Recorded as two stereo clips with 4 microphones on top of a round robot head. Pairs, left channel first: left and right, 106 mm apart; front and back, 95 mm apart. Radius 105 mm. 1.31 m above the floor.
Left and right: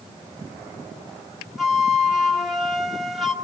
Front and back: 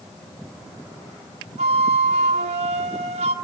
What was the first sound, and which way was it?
A flute, straight behind.